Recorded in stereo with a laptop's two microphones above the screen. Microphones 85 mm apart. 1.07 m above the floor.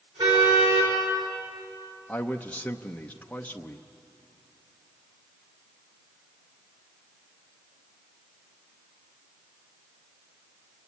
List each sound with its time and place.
0.2 s a car horn: 85° right, 7 m
2.1 s a man speaking: 15° left (ahead or behind), 0.7 m